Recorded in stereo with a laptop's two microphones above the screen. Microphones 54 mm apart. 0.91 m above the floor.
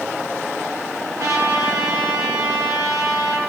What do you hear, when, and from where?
1.2 s a trumpet: 60° right (ahead or behind), 7.5 m